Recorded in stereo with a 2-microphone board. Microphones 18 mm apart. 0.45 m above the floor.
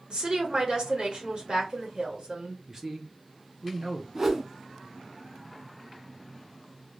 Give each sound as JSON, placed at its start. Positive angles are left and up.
{"t": 0.1, "sound": "a woman speaking", "side_deg": -50, "distance_m": 1.4}
{"t": 2.7, "sound": "a man speaking", "side_deg": -20, "distance_m": 0.7}
{"t": 4.2, "sound": "a whoosh", "side_deg": -25, "distance_m": 0.6}